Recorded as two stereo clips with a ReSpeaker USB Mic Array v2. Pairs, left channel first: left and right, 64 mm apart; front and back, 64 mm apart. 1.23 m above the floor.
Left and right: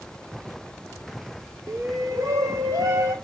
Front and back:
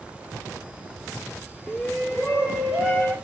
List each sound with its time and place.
1.7 s a shout: 80° right, 0.9 m; by 3.1 s 115° right, 1.6 m